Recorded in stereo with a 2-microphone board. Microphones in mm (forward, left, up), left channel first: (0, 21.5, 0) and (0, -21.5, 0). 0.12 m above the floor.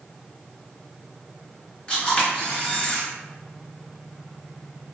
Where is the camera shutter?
25° left (ahead or behind), 1.7 m.